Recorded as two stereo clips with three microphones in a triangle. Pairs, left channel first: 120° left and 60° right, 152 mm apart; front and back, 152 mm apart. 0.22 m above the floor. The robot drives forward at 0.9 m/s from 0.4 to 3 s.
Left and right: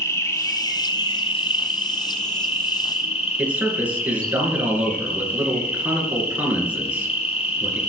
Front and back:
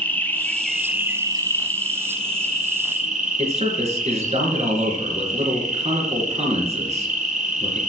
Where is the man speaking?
140° right, 3.5 m.